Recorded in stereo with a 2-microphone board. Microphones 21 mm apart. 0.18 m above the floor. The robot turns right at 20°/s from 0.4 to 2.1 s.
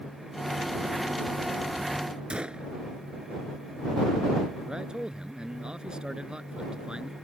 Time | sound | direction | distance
2.3 | a gunshot | 60° right (ahead or behind) | ?
4.7 | a man speaking | 45° right (ahead or behind) | ?